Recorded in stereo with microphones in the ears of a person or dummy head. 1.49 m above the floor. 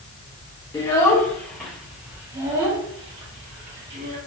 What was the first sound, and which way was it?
A child speaking, 20° left (ahead or behind).